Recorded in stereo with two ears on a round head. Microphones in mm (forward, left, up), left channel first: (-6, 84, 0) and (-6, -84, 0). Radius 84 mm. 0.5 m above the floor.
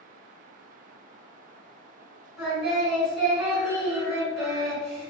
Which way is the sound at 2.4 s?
5° right (ahead or behind).